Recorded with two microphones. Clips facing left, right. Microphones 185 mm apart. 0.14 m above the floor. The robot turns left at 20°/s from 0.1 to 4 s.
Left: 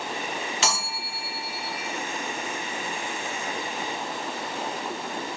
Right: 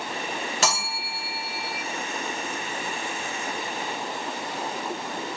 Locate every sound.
0.6 s a bell: 50° right (ahead or behind), 1.3 m; by 1.8 s 45° right (ahead or behind), 1.3 m